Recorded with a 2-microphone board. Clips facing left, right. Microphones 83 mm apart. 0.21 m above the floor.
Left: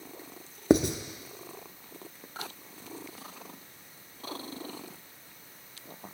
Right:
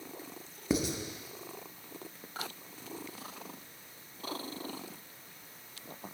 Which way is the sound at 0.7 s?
80° left.